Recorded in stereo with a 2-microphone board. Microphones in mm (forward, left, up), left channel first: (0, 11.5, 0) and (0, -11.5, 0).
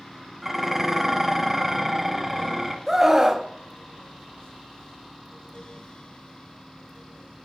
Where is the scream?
15° right (ahead or behind), 1.0 m.